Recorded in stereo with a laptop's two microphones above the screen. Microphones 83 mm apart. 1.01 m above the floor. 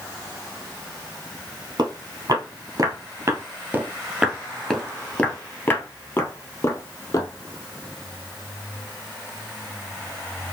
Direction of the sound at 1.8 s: 55° right (ahead or behind).